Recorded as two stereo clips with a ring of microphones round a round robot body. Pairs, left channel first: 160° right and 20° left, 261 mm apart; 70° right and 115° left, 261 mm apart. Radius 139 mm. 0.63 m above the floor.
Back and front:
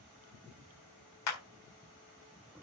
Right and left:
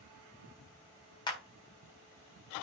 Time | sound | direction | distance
1.3 | a clap | 140° right | 4 m